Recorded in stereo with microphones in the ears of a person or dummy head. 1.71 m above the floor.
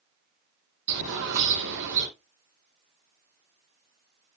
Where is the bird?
70° right (ahead or behind), 6 m.